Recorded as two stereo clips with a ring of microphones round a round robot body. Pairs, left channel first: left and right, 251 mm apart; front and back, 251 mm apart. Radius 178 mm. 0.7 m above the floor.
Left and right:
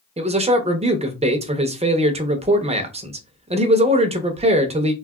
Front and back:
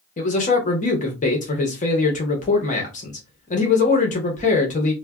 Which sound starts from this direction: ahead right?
A man speaking, at 0.2 s.